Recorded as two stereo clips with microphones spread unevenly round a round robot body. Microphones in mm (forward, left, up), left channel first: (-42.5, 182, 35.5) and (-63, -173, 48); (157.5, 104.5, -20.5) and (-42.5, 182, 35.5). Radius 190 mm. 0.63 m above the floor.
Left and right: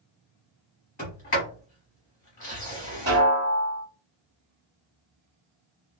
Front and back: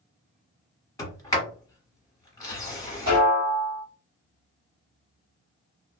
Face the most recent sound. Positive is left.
turn(degrees=-155)